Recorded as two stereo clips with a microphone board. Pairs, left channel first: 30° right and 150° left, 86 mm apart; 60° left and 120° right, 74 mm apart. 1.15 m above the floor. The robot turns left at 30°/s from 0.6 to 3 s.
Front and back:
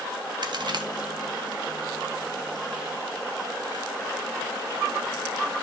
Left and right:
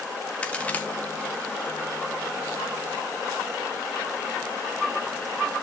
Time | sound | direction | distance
0.4 | a crack | 130° left | 1.4 m